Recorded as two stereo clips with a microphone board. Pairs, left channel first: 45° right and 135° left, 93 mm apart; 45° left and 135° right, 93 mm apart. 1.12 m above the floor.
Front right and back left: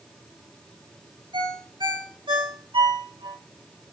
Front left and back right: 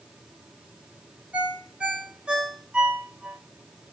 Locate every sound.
1.3 s a ringtone: 150° left, 2 m